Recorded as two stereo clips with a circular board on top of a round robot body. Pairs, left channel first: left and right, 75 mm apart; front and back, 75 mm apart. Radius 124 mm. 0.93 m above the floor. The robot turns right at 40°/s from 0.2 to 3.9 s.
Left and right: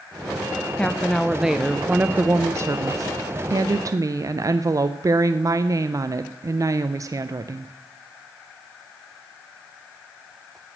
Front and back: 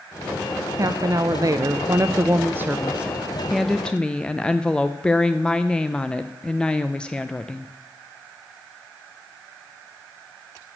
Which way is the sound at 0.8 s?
160° left.